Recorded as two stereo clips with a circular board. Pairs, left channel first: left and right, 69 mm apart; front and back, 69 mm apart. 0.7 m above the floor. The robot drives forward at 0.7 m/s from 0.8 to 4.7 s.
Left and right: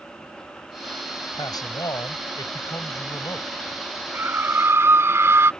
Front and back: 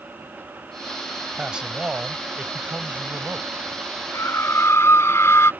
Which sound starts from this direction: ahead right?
A scream, at 4.1 s.